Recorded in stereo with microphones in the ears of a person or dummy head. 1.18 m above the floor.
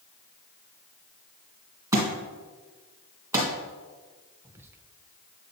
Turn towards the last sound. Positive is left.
turn(degrees=-15)  # may be behind; listen again after turning